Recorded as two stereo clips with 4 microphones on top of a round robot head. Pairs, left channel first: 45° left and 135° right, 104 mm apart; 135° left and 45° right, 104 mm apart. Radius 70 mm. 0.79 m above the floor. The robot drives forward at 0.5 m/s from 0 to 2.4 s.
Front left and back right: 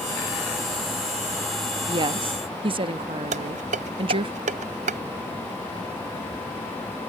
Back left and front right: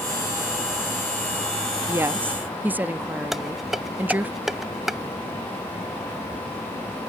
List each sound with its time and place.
1.9 s a woman speaking: 105° right; by 4.3 s 115° right
3.3 s dishes clattering: 135° right